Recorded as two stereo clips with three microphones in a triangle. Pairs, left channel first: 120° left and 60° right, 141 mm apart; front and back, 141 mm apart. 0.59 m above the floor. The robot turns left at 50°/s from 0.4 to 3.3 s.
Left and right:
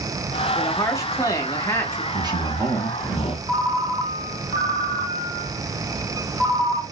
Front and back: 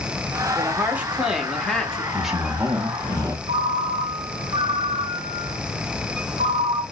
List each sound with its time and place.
0.6 s a woman speaking: 140° left, 0.8 m; by 2.0 s 65° left, 0.8 m
2.1 s a man speaking: 85° right, 0.7 m; by 3.4 s 145° right, 0.7 m
3.5 s a ringtone: 160° right, 2.5 m